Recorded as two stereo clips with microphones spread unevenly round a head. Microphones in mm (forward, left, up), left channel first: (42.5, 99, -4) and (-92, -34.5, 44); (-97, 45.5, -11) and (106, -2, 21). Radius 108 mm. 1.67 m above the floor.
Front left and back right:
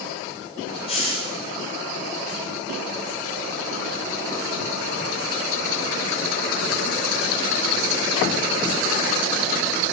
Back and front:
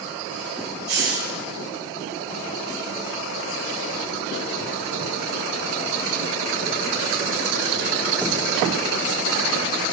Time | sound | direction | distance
0.9 | a hiss | 25° right | 4 m